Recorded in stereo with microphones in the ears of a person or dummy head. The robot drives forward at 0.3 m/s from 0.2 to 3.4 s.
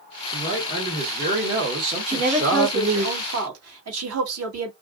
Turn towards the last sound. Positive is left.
turn(degrees=-85)